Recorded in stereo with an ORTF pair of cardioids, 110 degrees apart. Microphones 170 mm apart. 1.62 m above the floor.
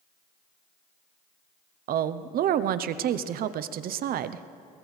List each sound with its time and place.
1.9 s a woman speaking: 60° right, 0.7 m